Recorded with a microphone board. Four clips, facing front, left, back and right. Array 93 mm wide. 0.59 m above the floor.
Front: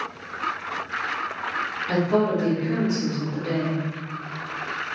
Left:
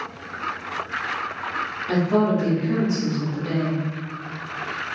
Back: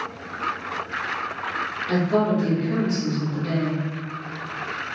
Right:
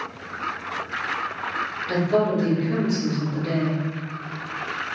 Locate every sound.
1.9 s a woman speaking: 70° left, 1.3 m